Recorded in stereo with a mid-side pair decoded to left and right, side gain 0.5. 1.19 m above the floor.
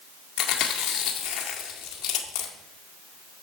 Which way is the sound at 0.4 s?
65° left.